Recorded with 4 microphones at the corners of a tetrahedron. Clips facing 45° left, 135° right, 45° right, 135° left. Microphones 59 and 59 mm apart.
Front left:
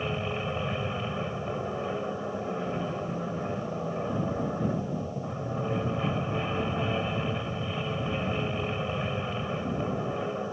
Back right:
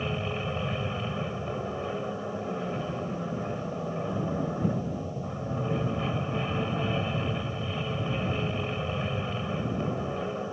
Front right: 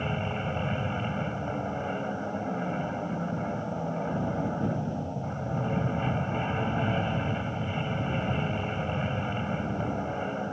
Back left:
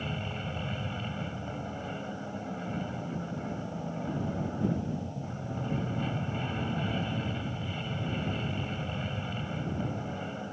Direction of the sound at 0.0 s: 35° right.